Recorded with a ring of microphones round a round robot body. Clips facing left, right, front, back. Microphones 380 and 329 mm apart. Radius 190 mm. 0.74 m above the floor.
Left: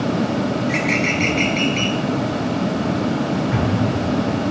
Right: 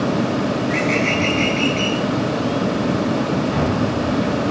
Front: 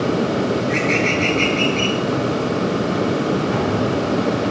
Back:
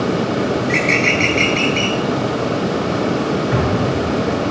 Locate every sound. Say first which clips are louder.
0.6 s a bird: right 1 dB, back 1 dB; 145° left, 5 m
3.5 s an explosion: right 1 dB, back 1 dB; 130° left, 6.5 m